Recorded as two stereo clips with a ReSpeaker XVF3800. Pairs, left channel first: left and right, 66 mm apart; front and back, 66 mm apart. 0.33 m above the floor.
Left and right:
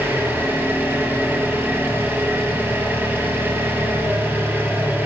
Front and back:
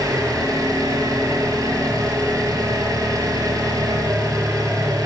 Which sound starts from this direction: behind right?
An engine running, at 0.0 s.